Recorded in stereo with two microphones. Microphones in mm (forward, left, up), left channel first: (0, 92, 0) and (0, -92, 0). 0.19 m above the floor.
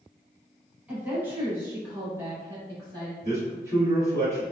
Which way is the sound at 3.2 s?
15° right (ahead or behind).